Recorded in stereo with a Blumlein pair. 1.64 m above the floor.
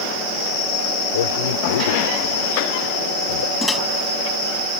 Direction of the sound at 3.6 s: 5° left.